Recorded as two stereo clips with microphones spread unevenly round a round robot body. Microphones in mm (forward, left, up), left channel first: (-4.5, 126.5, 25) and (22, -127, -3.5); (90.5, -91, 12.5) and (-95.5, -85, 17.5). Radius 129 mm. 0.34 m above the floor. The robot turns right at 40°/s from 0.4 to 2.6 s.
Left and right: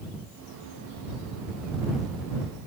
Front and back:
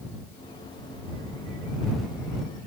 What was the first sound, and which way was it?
Only background noise.